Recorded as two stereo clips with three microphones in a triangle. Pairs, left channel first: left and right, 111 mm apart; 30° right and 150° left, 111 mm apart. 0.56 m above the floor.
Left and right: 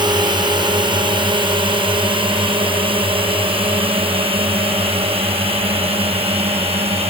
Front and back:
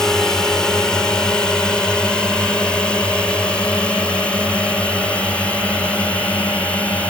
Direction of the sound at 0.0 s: 115° right.